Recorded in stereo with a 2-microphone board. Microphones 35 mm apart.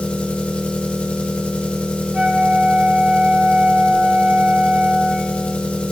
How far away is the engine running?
About 1.1 m.